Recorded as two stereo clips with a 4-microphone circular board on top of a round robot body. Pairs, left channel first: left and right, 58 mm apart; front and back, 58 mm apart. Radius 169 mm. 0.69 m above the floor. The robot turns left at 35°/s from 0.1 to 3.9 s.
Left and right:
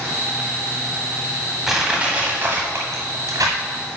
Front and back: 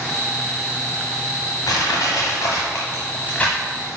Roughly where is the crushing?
Ahead.